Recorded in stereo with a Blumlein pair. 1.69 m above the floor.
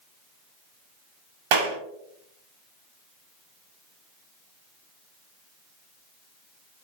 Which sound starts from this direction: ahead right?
A clap, at 1.5 s.